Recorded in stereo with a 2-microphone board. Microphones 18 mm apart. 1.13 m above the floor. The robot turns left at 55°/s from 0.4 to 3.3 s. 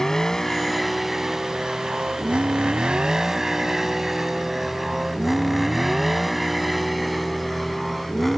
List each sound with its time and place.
0.0 s a vehicle: 35° left (ahead or behind); by 8.4 s 5° left (ahead or behind)